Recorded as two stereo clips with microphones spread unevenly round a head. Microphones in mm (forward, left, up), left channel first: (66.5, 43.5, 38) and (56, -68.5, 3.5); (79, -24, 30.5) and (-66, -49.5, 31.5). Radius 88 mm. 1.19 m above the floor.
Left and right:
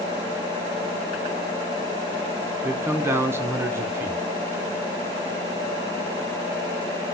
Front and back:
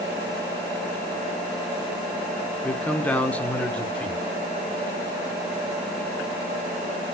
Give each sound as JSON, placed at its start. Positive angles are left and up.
{"t": 2.6, "sound": "a man speaking", "azimuth_deg": -65, "distance_m": 0.6}